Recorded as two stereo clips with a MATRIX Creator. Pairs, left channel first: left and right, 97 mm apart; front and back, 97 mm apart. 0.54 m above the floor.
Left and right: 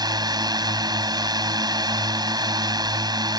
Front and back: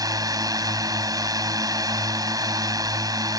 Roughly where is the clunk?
No clunk in this recording.